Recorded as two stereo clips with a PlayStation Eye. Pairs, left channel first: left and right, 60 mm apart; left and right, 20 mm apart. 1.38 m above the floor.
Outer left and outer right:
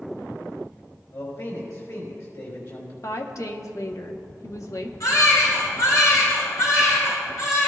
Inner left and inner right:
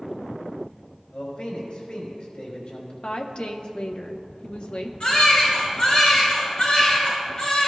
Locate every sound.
1.1 s a man speaking: 65° left (ahead or behind), 4 m
3.0 s a woman speaking: 60° left (ahead or behind), 0.9 m
5.0 s a baby crying: 65° left (ahead or behind), 4 m